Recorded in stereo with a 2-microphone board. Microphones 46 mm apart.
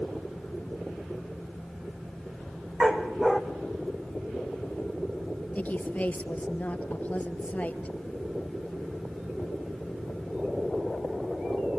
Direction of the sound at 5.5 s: 35° left (ahead or behind).